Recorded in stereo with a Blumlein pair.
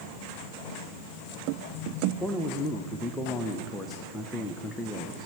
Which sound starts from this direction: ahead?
A man speaking, at 2.2 s.